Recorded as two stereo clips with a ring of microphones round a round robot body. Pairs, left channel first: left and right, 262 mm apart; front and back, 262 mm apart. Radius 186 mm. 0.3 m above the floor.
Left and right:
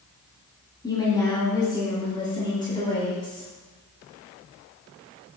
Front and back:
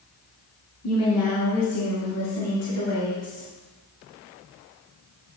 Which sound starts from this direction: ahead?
A woman speaking, at 0.8 s.